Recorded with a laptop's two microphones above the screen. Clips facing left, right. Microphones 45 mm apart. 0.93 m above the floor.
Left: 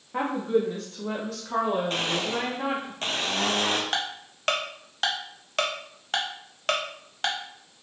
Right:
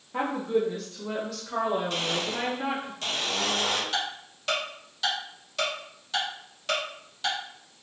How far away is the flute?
I don't hear a flute.